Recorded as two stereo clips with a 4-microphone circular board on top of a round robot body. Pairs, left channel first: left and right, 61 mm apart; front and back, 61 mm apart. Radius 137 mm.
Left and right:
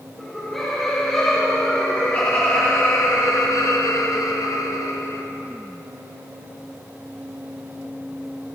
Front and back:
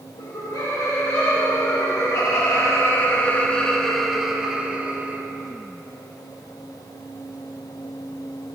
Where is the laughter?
10° left, 2.5 m; by 5.2 s 120° left, 1.7 m.